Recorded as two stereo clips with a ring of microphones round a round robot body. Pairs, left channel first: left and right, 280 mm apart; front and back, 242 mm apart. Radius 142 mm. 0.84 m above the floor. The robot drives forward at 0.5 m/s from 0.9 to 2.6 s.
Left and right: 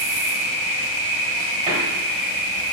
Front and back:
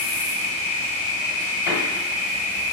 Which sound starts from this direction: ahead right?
A door slam, at 1.7 s.